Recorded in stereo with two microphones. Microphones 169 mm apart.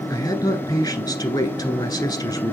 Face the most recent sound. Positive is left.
turn(degrees=25)  # may be behind; listen again after turning